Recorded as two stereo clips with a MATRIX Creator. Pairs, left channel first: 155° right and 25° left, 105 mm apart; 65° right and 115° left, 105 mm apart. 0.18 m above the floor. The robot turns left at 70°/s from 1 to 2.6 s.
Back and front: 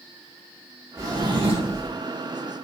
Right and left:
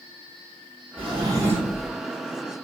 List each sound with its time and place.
1.0 s a drawer: 85° left, 1.4 m; by 1.9 s 20° left, 1.4 m